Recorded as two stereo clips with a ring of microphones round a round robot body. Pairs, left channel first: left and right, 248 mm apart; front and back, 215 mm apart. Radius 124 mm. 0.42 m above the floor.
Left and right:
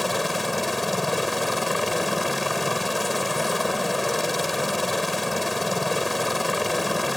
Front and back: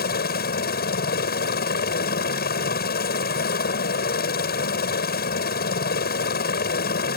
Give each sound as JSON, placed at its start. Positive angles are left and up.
{"t": 0.0, "sound": "a helicopter", "azimuth_deg": 0}